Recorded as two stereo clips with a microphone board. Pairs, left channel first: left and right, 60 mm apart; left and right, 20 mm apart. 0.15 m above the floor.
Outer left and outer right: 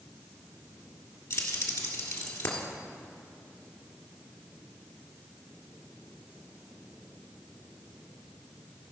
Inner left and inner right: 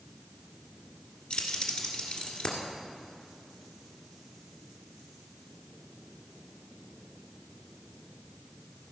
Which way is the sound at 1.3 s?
60° left (ahead or behind).